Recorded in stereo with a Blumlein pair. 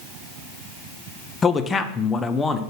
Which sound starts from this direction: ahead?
A man speaking, at 1.4 s.